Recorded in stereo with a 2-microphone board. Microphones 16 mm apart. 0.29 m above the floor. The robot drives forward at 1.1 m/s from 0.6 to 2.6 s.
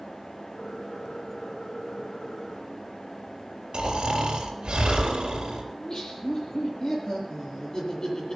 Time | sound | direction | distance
3.7 | snoring | 70° right (ahead or behind) | 4 m
5.7 | laughter | 45° left (ahead or behind) | 6.5 m